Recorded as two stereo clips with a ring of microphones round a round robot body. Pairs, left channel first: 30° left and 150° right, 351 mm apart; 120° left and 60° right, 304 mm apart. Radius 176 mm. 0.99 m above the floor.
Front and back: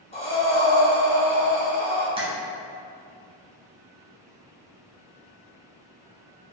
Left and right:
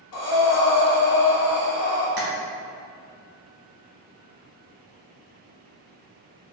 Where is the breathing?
105° left, 0.9 m.